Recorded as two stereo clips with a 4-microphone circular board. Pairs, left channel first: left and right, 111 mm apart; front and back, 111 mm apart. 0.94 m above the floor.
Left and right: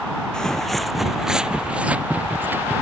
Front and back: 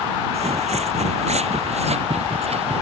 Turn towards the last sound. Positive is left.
turn(degrees=-160)